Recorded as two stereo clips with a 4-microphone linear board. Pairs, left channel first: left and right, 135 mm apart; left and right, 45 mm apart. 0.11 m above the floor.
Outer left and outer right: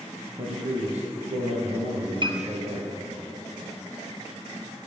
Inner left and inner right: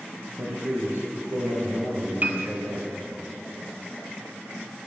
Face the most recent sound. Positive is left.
turn(degrees=-40)  # may be behind; listen again after turning